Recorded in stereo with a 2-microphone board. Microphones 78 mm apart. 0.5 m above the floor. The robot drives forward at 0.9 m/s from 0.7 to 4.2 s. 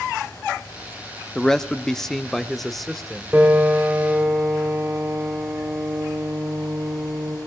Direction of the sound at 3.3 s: 20° right (ahead or behind).